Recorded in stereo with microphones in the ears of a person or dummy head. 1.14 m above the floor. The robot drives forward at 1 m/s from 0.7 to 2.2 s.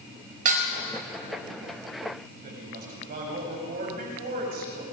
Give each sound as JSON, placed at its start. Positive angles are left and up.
{"t": 0.5, "sound": "dishes clattering", "side_deg": -40, "distance_m": 3.5}
{"t": 2.4, "sound": "a woman speaking", "side_deg": -45, "distance_m": 5.5}